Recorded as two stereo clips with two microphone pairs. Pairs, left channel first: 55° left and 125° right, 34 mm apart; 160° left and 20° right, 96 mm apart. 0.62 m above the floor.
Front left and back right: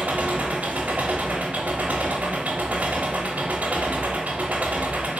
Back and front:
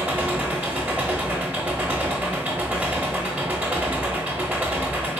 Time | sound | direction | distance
0.0 | an engine running | 90° right | 0.9 m